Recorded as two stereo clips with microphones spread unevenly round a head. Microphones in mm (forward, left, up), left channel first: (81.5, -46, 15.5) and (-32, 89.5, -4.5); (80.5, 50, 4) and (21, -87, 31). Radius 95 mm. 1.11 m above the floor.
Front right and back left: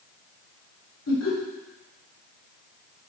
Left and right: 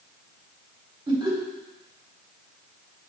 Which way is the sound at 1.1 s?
50° right.